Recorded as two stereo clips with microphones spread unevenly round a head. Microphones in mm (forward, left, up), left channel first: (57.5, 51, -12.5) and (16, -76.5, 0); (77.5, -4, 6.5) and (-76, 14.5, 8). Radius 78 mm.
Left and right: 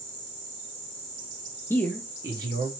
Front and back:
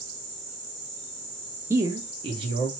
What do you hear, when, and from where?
1.7 s a man speaking: 130° left, 0.5 m; by 2.7 s 140° right, 0.8 m